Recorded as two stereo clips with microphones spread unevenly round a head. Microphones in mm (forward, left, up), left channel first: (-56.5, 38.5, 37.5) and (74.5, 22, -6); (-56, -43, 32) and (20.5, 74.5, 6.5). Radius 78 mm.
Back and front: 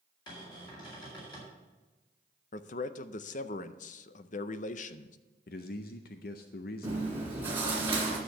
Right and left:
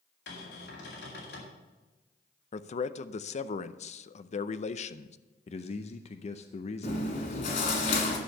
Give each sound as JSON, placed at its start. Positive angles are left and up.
{"t": 0.3, "sound": "a cupboard door", "azimuth_deg": -120, "distance_m": 3.0}
{"t": 2.5, "sound": "a man speaking", "azimuth_deg": -155, "distance_m": 0.5}
{"t": 5.5, "sound": "a man speaking", "azimuth_deg": -165, "distance_m": 0.6}
{"t": 6.8, "sound": "chewing", "azimuth_deg": -90, "distance_m": 2.0}